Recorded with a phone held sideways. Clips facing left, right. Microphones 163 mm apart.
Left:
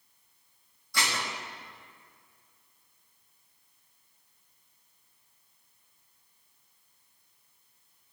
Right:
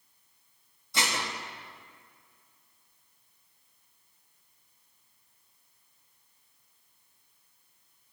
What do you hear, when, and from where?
0.9 s dishes clattering: 20° right (ahead or behind), 1.3 m